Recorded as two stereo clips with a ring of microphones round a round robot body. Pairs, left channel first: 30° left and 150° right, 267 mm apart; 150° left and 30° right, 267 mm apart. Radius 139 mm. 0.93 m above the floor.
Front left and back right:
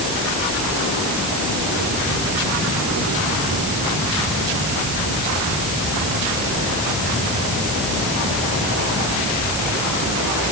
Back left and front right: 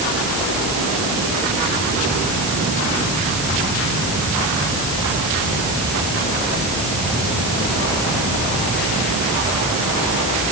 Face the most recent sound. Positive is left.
No sound to turn to.